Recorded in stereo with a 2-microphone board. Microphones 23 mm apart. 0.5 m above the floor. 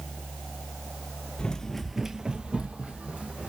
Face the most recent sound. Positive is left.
turn(degrees=-70)  # may be behind; listen again after turning